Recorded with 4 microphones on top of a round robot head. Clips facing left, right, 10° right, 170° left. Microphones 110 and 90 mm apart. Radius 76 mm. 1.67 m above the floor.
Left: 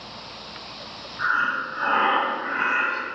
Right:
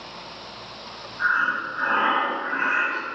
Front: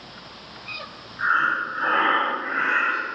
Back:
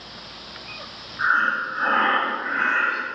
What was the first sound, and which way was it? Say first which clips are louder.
Breathing: right 1 dB, back 1 dB; 95° left.